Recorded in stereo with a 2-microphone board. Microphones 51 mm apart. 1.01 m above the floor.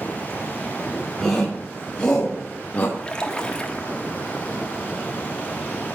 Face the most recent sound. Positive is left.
turn(degrees=20)  # may be behind; listen again after turning